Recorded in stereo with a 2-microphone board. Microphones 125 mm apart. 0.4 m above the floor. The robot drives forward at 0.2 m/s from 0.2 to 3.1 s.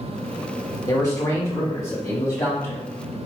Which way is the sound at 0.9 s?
30° left (ahead or behind).